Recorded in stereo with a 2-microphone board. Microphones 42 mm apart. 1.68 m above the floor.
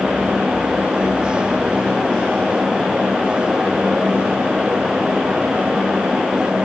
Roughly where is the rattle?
I don't hear a rattle.